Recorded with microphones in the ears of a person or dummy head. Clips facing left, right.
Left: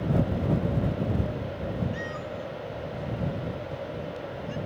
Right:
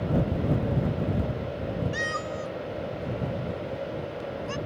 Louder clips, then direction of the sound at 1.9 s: Right 2 dB; 75° right (ahead or behind).